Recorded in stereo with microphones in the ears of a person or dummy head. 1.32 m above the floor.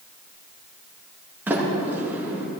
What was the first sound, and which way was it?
A sliding door, 10° right (ahead or behind).